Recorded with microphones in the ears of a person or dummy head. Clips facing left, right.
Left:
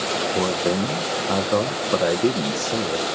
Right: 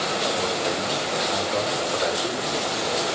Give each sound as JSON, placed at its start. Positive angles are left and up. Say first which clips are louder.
{"t": 0.3, "sound": "a man speaking", "louder": "left 4 dB", "side_deg": 80, "distance_m": 1.3}